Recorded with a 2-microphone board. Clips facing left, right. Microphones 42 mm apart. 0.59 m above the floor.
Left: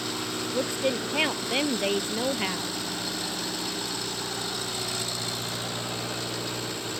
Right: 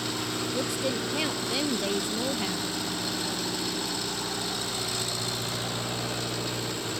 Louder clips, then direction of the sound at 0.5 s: Left 4 dB; 35° left (ahead or behind).